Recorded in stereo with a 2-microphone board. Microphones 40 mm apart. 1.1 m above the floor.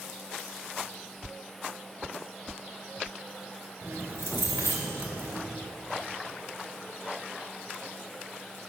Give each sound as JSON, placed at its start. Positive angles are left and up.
{"t": 3.8, "sound": "keys jangling", "side_deg": -80, "distance_m": 3.5}